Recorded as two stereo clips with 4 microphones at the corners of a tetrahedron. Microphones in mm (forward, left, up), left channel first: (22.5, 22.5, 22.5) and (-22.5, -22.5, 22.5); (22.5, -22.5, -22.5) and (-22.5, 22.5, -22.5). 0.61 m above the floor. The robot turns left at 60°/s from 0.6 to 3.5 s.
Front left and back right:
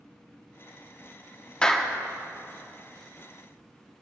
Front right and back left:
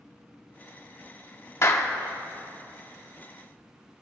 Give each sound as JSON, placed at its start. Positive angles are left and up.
{"t": 1.6, "sound": "a clap", "azimuth_deg": -25, "distance_m": 0.9}